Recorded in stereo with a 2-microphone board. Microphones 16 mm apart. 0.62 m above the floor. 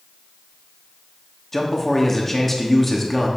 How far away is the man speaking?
About 1.0 m.